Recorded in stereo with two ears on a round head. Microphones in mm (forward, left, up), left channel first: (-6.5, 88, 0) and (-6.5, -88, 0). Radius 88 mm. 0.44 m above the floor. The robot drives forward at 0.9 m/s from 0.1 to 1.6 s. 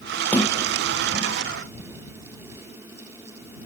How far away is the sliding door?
About 3 m.